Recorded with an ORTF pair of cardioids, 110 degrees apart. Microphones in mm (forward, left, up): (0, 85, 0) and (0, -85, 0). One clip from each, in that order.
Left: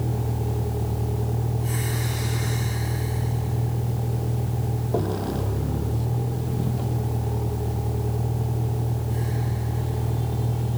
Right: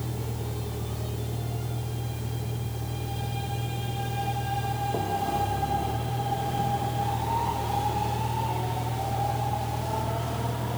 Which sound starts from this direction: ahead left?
A vehicle, at 0.0 s.